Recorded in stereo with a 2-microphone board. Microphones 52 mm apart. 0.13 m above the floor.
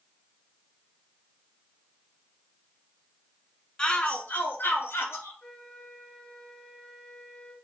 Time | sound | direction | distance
3.8 | a shout | 15° left (ahead or behind) | 1.3 m
5.4 | a flute | 20° left (ahead or behind) | 1.3 m